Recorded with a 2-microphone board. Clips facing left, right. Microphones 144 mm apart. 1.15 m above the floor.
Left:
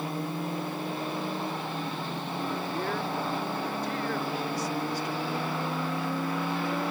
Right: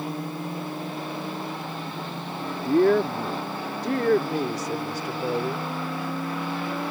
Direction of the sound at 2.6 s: 75° right (ahead or behind).